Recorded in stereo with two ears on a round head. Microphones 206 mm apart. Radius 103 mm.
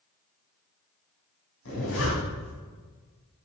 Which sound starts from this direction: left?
A zipper, at 1.6 s.